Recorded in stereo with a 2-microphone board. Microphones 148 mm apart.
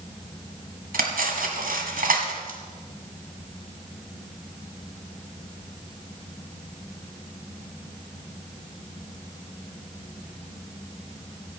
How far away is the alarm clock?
I don't hear an alarm clock.